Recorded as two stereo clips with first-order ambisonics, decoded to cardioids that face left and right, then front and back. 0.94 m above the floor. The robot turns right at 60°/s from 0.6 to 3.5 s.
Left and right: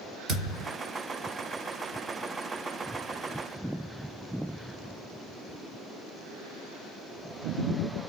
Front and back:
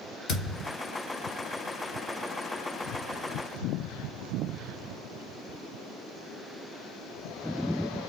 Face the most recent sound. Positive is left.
turn(degrees=130)